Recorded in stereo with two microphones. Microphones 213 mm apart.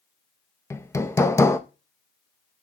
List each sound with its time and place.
0.7 s hammering: 15° left (ahead or behind), 0.6 m